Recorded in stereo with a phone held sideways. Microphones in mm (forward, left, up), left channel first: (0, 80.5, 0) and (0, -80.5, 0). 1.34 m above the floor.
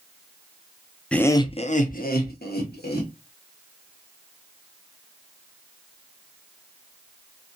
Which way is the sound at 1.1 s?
5° left (ahead or behind).